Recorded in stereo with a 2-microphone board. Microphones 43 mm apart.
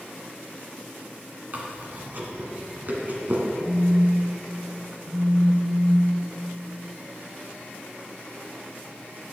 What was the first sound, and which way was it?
Chewing, 45° right (ahead or behind).